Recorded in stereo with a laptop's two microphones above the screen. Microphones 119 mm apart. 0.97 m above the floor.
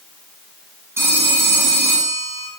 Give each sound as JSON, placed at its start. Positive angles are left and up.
{"t": 1.0, "sound": "a phone ringing", "side_deg": -20, "distance_m": 6.5}